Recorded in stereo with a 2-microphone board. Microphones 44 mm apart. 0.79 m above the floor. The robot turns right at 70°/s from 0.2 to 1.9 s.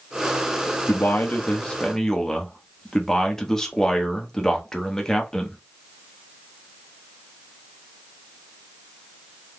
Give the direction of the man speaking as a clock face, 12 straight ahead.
9 o'clock.